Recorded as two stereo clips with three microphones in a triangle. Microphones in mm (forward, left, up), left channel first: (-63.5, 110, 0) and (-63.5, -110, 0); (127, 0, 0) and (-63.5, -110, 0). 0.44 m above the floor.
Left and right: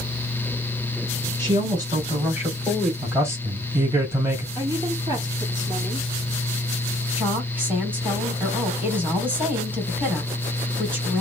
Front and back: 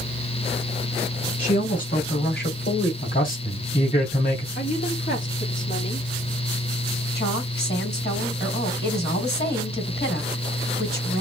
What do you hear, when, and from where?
1.4 s a woman speaking: 25° right, 3 m; by 2.9 s straight ahead, 2.5 m
3.0 s a man speaking: 15° right, 3 m
4.5 s a woman speaking: 20° right, 3.5 m
7.2 s a woman speaking: 10° right, 3 m